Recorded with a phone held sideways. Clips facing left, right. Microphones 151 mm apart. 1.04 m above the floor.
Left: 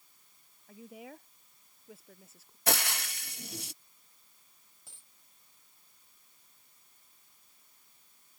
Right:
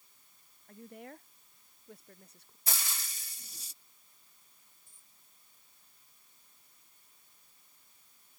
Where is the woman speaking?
5° left (ahead or behind).